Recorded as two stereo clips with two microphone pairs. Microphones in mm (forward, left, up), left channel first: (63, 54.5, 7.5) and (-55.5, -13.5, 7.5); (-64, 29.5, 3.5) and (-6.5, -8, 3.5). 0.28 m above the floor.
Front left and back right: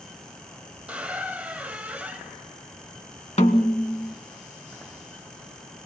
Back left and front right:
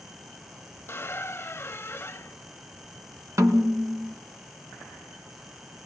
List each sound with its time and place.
0.9 s a squeak: 130° left, 0.7 m
3.4 s a snare drum: straight ahead, 2 m